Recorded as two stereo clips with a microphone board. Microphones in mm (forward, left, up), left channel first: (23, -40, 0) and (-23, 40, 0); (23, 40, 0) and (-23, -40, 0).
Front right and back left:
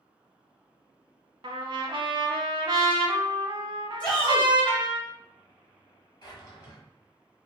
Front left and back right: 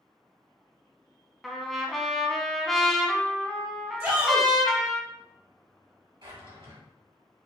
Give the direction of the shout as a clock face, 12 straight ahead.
4 o'clock.